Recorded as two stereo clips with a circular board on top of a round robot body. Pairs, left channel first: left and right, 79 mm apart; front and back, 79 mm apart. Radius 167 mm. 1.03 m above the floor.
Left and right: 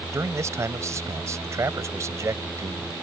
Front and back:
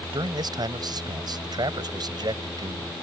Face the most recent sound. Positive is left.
turn(degrees=-145)